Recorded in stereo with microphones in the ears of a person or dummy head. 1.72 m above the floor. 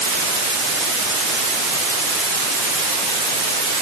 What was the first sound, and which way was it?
Only background noise.